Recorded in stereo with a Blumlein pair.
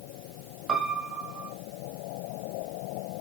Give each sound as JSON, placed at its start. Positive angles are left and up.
{"t": 0.7, "sound": "a piano", "azimuth_deg": -20, "distance_m": 1.7}